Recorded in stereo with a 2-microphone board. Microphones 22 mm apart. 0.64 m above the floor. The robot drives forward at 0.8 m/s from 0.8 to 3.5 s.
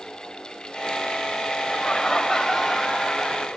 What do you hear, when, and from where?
1.6 s laughter: 25° left (ahead or behind), 2.5 m; by 3.5 s 15° left (ahead or behind), 4 m